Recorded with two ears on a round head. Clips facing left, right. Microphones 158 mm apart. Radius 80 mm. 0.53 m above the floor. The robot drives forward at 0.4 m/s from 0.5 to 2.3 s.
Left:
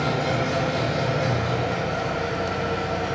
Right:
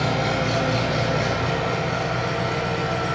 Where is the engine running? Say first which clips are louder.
Right 1 dB; 75° right (ahead or behind), 4.5 m; by 3.1 s 80° right, 4.5 m.